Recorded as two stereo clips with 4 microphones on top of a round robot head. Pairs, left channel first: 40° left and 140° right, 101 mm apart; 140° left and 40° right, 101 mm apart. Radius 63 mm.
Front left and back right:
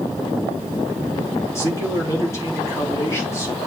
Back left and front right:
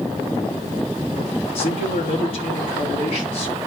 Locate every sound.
1.6 s a man speaking: 105° left, 4 m